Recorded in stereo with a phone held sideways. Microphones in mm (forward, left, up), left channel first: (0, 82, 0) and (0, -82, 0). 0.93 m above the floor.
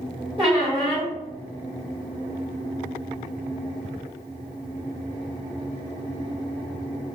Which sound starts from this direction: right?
A squeak, at 0.4 s.